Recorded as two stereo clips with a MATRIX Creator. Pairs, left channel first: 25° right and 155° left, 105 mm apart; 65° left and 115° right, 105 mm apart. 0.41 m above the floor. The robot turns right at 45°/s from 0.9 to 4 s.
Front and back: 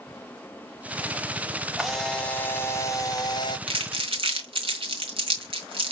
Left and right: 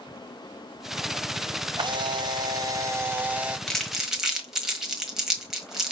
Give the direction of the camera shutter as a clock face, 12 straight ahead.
4 o'clock.